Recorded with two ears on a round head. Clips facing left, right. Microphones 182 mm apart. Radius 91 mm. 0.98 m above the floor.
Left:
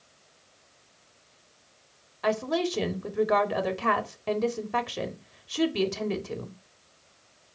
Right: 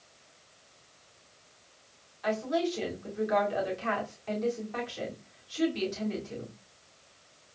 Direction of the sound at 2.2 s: 70° left (ahead or behind).